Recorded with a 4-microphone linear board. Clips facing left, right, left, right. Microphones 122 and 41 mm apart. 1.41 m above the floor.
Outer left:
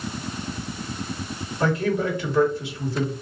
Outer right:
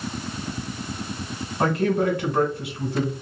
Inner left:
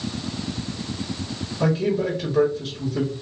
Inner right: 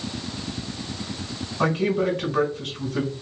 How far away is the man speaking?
About 2 m.